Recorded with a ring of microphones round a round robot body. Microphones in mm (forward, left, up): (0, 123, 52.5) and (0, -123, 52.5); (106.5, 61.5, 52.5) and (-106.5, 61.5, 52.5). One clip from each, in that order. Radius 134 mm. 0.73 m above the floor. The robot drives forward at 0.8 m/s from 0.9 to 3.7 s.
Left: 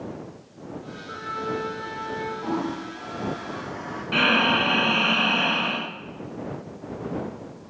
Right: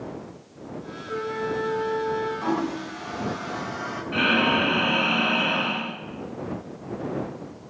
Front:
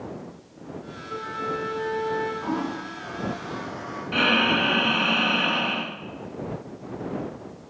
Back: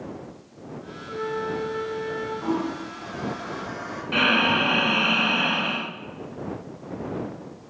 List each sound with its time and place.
1.1 s a flute: 35° left, 6 m; by 2.3 s 40° left, 5 m
2.4 s a toilet flushing: 105° right, 3.5 m; by 4.0 s 120° right, 4 m
4.1 s breathing: 115° left, 1.2 m